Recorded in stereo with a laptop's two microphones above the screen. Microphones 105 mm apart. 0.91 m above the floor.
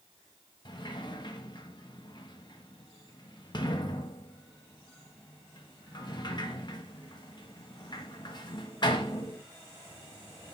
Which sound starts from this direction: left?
A sliding door, at 0.7 s.